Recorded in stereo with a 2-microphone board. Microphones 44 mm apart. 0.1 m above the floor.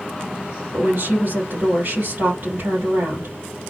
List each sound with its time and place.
0.7 s a woman speaking: 60° right (ahead or behind), 3 m